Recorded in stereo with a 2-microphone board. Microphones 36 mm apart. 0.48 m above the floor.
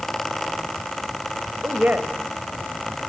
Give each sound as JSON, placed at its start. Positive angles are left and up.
{"t": 1.6, "sound": "a woman speaking", "side_deg": -55, "distance_m": 2.0}